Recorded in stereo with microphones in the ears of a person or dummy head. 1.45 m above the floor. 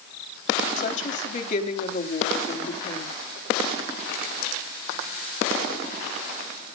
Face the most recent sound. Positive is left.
turn(degrees=40)  # may be behind; listen again after turning